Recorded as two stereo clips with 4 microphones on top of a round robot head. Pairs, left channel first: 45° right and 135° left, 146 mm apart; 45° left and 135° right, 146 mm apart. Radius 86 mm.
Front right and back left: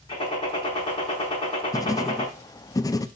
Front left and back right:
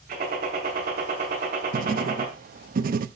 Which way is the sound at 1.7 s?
110° right.